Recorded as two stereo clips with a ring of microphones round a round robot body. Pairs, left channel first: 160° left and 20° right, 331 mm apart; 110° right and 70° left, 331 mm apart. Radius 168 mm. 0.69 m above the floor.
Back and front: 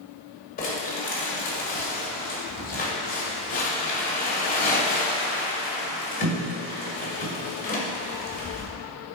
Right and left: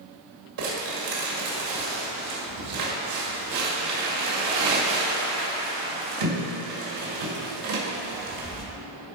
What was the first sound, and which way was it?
Crumpling, 90° left.